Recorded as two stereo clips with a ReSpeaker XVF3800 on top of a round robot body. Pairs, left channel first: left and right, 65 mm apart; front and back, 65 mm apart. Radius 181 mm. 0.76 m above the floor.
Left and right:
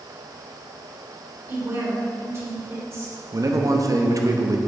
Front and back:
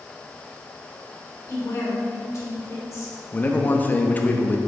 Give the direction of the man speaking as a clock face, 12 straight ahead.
2 o'clock.